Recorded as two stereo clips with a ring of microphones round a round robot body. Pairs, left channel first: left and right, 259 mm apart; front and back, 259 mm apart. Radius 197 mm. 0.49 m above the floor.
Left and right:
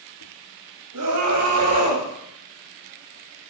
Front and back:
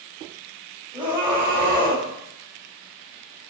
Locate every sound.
0.9 s a scream: 105° right, 3.5 m